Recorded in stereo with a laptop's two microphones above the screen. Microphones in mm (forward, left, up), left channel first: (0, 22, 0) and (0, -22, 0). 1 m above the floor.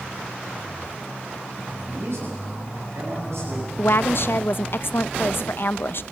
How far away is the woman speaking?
About 0.5 m.